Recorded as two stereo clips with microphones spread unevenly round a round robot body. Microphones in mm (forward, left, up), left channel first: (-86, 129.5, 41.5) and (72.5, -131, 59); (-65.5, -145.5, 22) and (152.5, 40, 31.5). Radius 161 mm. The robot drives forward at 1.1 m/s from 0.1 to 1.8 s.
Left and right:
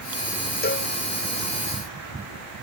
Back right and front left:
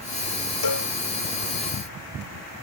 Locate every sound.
0.6 s a cowbell: straight behind